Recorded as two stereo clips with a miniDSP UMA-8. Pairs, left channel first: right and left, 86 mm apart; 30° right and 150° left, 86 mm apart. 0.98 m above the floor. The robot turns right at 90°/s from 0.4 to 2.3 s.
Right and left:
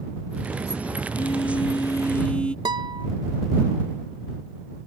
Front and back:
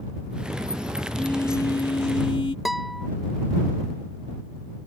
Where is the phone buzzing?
120° right; by 2.5 s 10° right.